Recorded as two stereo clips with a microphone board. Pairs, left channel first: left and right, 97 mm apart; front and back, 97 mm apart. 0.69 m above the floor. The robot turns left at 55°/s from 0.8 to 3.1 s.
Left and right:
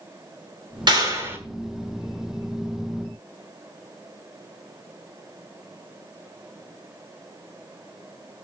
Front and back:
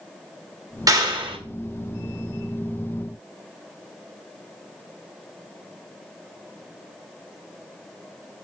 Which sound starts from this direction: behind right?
A clap, at 0.9 s.